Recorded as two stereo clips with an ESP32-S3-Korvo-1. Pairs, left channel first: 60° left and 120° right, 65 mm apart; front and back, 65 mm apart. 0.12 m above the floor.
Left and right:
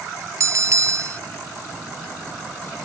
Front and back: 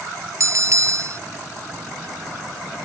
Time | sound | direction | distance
0.4 | a bell | 150° right | ?